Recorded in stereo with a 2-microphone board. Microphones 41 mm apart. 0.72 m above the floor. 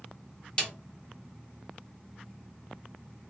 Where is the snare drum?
25° left (ahead or behind), 1.0 m.